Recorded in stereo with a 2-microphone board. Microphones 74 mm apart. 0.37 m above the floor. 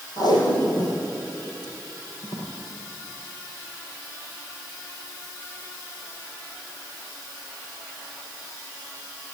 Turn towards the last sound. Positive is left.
turn(degrees=60)  # may be behind; listen again after turning